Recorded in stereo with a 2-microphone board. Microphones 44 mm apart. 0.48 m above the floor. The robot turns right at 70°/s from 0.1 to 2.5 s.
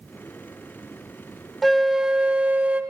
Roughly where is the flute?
Behind.